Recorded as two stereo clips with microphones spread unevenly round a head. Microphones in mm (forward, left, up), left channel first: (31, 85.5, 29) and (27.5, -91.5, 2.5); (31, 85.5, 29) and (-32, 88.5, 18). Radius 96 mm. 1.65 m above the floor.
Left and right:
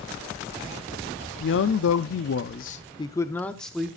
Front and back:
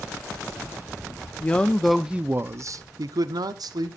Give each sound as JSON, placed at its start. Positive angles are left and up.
{"t": 1.4, "sound": "a man speaking", "azimuth_deg": 70, "distance_m": 0.7}